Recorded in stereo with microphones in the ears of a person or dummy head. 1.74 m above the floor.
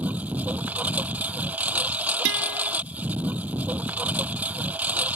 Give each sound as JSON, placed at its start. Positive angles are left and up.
{"t": 0.0, "sound": "a lawn mower", "side_deg": -5}
{"t": 2.2, "sound": "a guitar", "side_deg": -70}